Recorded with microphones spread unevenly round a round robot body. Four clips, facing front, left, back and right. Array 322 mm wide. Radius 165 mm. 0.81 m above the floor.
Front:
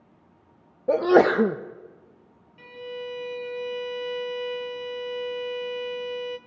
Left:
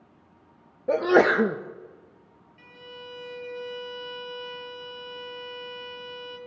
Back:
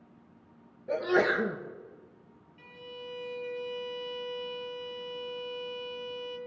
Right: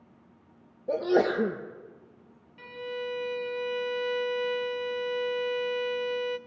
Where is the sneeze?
20° left, 1.1 m.